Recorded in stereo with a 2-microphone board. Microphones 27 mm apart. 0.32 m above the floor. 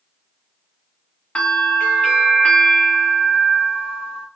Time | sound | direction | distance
1.4 | a bell | 55° left (ahead or behind) | 1.6 m